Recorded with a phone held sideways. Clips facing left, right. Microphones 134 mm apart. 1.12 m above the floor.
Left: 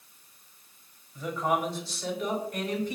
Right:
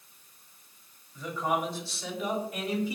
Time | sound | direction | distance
1.1 | a man speaking | 5° left (ahead or behind) | 5 m